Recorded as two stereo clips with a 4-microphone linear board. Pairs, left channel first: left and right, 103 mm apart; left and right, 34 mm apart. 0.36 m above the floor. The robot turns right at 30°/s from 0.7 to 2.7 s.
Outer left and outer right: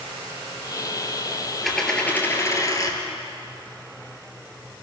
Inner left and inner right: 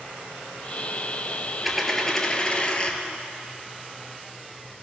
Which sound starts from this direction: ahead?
A dropped coin, at 1.6 s.